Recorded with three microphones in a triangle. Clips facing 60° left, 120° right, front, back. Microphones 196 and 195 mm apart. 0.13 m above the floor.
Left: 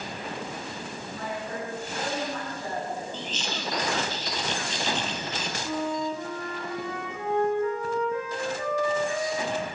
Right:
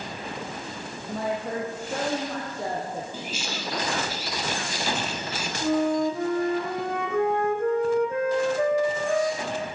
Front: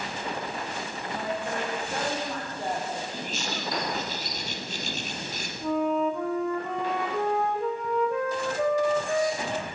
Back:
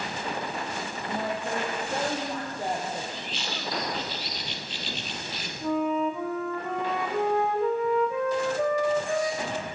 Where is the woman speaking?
115° right, 4.5 m; by 3.0 s 100° right, 6.5 m.